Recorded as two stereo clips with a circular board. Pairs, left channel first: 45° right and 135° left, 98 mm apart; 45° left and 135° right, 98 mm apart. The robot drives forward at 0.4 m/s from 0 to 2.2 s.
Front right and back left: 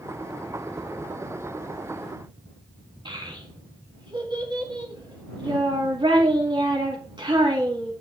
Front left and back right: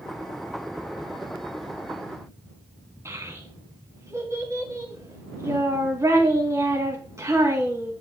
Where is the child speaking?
170° left, 3 m.